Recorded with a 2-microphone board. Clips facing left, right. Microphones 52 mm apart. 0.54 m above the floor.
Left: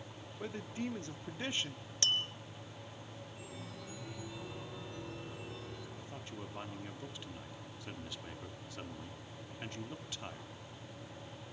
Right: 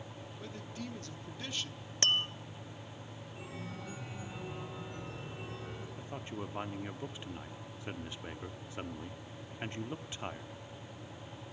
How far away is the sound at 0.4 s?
About 0.9 m.